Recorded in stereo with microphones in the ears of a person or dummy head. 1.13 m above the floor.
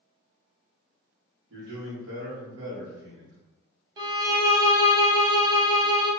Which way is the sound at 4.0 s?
25° right (ahead or behind).